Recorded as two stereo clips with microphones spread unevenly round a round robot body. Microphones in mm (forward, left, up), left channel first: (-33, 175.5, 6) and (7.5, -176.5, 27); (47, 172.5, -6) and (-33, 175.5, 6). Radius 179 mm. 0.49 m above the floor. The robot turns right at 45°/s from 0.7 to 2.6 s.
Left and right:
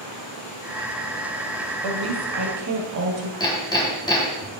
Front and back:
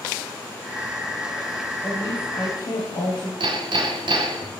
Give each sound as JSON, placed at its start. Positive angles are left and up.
{"t": 1.8, "sound": "a woman speaking", "azimuth_deg": -70, "distance_m": 2.5}
{"t": 3.4, "sound": "hammering", "azimuth_deg": 175, "distance_m": 3.0}